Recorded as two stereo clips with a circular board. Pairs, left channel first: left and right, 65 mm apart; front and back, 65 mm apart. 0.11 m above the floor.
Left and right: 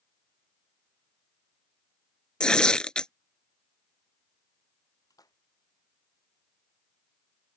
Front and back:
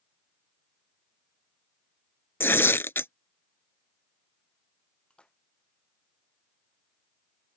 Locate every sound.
2.4 s tearing paper: 20° left
5.1 s a splash: 75° left